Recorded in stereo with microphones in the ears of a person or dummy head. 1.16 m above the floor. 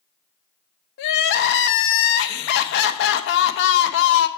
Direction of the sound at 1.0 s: 65° left (ahead or behind).